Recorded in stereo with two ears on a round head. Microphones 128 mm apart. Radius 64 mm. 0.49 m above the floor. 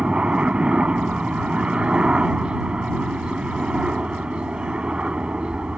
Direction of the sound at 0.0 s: 5° right (ahead or behind).